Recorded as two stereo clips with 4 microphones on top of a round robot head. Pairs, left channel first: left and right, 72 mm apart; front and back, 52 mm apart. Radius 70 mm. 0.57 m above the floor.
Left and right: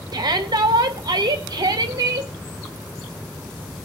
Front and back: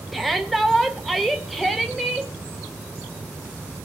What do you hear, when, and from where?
0.1 s a shout: 90° right, 2.5 m